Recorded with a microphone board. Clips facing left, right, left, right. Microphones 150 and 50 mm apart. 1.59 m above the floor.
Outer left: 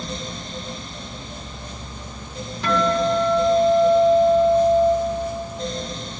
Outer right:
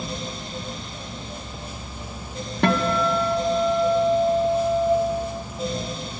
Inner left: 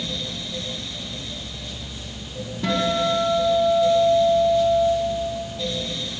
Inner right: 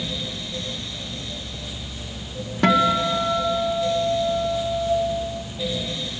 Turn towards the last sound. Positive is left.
turn(degrees=-60)  # may be behind; listen again after turning